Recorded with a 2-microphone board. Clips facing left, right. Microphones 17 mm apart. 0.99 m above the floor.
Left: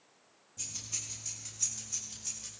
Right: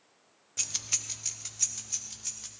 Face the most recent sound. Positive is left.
turn(degrees=-15)  # may be behind; listen again after turning